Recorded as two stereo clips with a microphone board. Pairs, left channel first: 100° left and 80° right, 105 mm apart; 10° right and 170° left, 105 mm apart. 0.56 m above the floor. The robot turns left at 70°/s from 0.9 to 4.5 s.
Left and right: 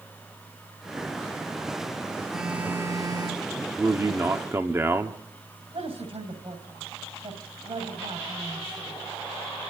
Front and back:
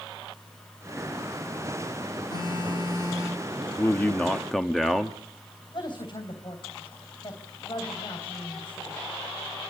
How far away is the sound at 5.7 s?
About 3.5 m.